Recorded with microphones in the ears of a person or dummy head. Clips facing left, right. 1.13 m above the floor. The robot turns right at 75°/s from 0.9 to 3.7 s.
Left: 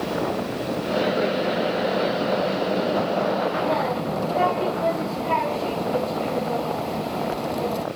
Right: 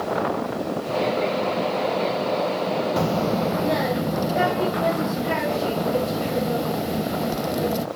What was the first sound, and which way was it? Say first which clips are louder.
A child speaking: even; 75° right.